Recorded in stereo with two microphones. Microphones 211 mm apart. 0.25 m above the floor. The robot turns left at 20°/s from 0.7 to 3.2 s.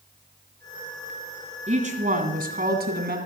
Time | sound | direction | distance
1.7 | a woman speaking | 40° right | 2.0 m